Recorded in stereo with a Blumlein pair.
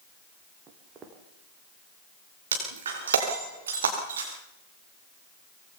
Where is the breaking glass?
65° right, 6 m.